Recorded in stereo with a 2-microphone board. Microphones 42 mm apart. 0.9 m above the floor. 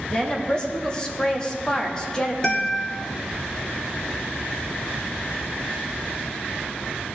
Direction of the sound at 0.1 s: 25° left (ahead or behind).